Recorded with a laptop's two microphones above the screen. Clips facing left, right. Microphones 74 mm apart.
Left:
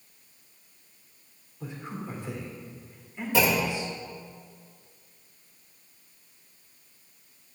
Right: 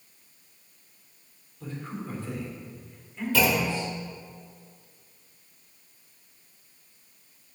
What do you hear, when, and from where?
1.6 s a man speaking: 15° left (ahead or behind), 3 m
3.3 s a clunk: 25° left (ahead or behind), 1.2 m